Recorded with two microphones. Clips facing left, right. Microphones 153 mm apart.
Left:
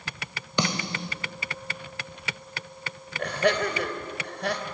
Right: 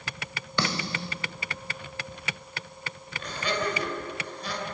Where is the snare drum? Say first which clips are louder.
Left 2 dB; 20° left (ahead or behind), 1.3 m.